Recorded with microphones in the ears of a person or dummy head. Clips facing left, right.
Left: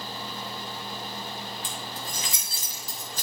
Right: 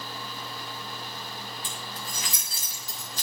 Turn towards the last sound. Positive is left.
turn(degrees=35)  # may be behind; listen again after turning